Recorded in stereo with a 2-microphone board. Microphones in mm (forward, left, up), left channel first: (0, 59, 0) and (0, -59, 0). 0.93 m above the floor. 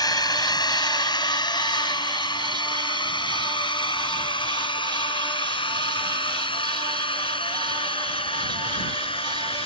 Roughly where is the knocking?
No knocking in this recording.